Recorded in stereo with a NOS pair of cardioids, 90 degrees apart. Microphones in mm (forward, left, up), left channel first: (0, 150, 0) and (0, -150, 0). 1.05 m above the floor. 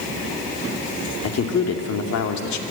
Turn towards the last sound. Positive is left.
turn(degrees=70)